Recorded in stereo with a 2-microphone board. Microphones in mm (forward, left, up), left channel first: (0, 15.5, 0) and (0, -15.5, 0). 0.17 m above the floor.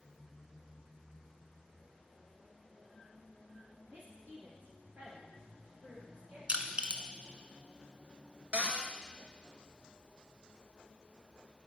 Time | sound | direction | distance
3.9 | a woman speaking | 70° right (ahead or behind) | 3.5 m
6.5 | crushing | 40° right (ahead or behind) | 0.8 m
8.5 | a cupboard door | 35° right (ahead or behind) | 0.9 m